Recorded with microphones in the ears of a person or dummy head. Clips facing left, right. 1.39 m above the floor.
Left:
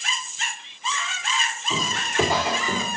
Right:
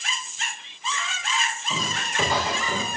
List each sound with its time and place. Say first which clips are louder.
1.7 s footsteps: left 7 dB; 15° left (ahead or behind), 3.5 m